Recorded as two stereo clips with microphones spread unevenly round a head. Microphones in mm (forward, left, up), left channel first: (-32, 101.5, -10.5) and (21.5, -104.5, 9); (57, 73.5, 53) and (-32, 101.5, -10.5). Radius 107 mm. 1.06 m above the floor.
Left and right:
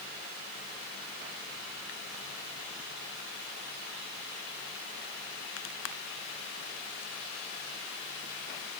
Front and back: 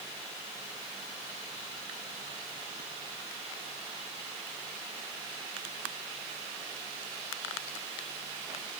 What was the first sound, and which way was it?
Only background noise.